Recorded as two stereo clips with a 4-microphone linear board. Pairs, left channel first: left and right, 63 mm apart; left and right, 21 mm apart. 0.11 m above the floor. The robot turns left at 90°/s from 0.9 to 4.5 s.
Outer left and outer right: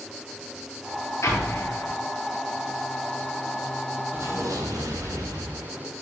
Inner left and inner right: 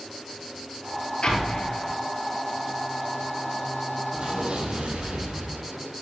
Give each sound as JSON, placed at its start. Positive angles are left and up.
{"t": 1.2, "sound": "an explosion", "azimuth_deg": 95, "distance_m": 1.3}
{"t": 4.1, "sound": "an explosion", "azimuth_deg": -35, "distance_m": 1.3}